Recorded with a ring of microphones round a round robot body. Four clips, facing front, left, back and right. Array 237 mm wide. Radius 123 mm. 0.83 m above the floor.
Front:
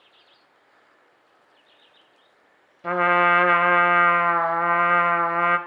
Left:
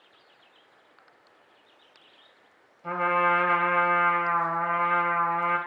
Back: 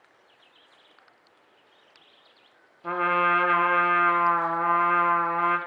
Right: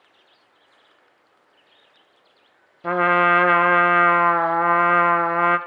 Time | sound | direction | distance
2.8 | a trumpet | 70° right | 0.6 m